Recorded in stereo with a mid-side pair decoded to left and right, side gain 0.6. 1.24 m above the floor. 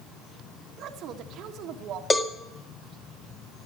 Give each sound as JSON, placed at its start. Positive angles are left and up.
{"t": 0.8, "sound": "a woman speaking", "azimuth_deg": -60, "distance_m": 1.4}
{"t": 2.1, "sound": "a cowbell", "azimuth_deg": 25, "distance_m": 2.0}